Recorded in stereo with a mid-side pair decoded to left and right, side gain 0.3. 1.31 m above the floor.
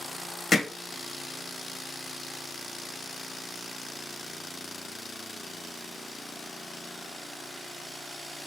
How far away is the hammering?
About 1.2 m.